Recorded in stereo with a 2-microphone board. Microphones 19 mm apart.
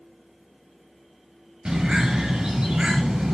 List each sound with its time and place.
1.6 s a bird: 40° right (ahead or behind), 7 m